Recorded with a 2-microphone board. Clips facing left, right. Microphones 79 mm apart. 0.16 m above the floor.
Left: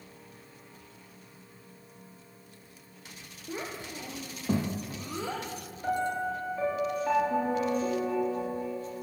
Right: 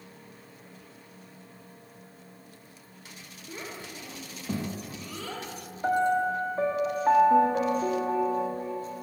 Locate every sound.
3.5 s a child speaking: 20° left (ahead or behind), 4.5 m
5.8 s a piano: 40° right (ahead or behind), 5 m